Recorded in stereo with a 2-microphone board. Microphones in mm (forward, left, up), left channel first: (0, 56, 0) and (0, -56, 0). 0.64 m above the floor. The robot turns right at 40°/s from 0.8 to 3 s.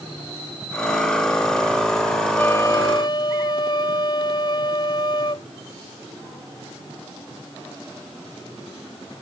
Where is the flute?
15° left (ahead or behind); by 5.5 s 40° left (ahead or behind).